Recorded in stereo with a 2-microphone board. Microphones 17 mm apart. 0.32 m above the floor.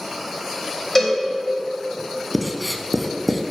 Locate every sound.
0.9 s a cowbell: 20° left (ahead or behind), 1.9 m
2.3 s writing: 10° right (ahead or behind), 0.5 m